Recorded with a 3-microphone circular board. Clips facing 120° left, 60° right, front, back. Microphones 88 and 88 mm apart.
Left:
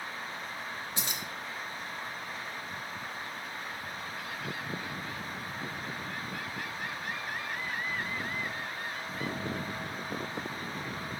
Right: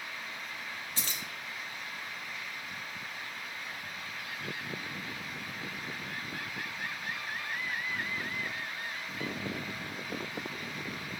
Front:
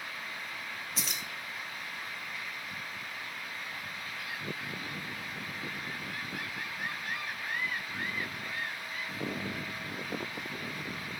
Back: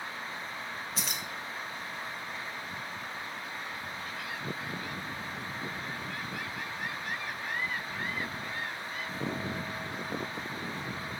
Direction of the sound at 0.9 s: 95° left.